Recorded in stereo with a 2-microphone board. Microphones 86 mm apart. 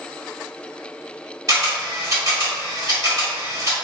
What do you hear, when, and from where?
1.5 s a camera shutter: 45° right (ahead or behind), 1.9 m